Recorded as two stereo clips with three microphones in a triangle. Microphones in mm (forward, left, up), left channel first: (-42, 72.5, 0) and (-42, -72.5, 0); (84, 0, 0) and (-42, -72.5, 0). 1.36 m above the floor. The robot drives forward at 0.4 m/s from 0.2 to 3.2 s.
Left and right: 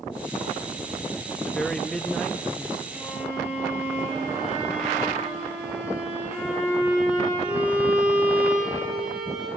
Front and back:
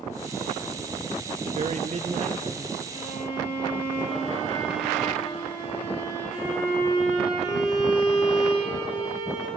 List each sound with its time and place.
1.4 s a man speaking: 175° left, 1.0 m; by 2.8 s straight behind, 1.5 m
2.9 s a violin: 10° right, 7.5 m